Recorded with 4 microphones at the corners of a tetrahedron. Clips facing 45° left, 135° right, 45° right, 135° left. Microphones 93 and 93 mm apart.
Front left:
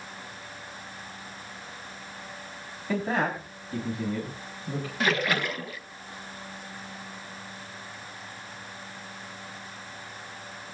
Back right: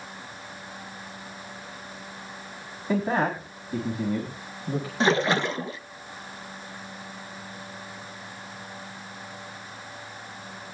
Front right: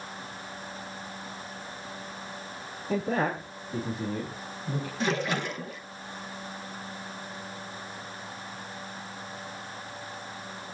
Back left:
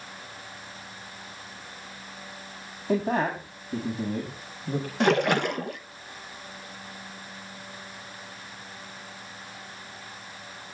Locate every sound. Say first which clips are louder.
2.9 s a man speaking: back right 3 dB, back left 3 dB; 150° left, 7 m; by 4.9 s 155° left, 4.5 m
5.0 s a splash: back right 4 dB, back left 7 dB; 160° left, 0.7 m